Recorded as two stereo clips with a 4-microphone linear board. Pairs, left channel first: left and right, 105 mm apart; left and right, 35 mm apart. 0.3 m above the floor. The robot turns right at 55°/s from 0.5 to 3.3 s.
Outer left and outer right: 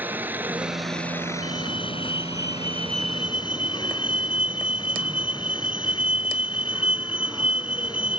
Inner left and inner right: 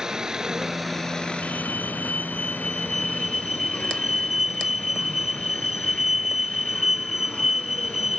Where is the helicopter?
20° right; by 8.2 s 135° left.